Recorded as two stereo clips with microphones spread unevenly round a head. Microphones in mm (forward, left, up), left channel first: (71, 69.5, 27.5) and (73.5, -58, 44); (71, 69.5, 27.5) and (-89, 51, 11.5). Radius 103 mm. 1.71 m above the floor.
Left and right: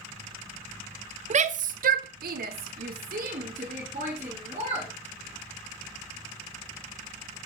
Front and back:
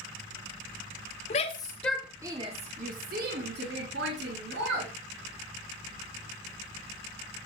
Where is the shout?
55° right, 0.6 m; by 4.9 s 145° right, 1.7 m.